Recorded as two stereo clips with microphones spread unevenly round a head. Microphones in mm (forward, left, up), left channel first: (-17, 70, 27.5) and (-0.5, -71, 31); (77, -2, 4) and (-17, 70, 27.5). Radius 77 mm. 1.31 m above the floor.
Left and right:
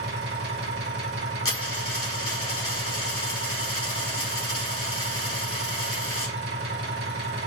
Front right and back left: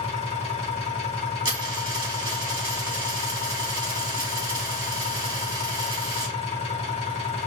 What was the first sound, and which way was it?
An engine running, 95° right.